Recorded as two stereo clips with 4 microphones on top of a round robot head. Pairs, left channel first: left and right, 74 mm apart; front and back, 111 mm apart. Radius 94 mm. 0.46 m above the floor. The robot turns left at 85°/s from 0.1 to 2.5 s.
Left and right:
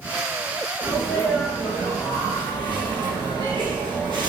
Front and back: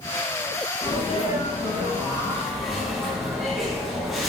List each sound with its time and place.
0.8 s a sneeze: 55° left, 4 m; by 4.3 s 90° right, 4 m